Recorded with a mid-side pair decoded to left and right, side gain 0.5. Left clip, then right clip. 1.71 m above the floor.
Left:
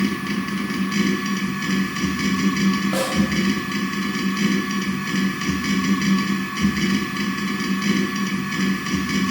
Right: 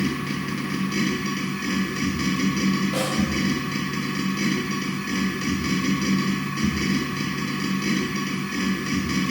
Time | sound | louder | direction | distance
0.0 | a machine running | left 3 dB | 45° left | 1.1 m
2.9 | a snare drum | left 3 dB | 50° left | 0.8 m